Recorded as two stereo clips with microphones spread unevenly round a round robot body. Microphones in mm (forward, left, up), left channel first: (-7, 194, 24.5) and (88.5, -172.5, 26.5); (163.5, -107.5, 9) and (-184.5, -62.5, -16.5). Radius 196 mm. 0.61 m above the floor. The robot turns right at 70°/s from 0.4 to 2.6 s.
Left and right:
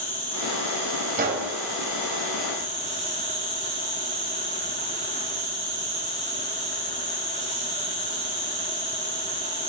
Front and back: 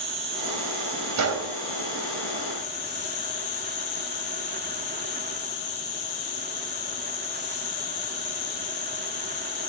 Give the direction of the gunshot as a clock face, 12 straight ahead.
5 o'clock.